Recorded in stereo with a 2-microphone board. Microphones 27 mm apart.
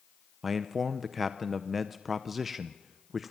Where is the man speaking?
5° right (ahead or behind), 0.7 m.